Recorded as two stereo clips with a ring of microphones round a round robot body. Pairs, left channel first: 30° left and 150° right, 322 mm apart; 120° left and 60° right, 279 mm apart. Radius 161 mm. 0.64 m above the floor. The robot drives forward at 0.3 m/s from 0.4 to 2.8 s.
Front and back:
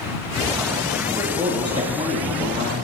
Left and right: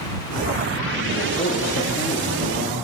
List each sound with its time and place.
1.2 s a man speaking: 130° left, 0.8 m; by 2.8 s 160° left, 1.0 m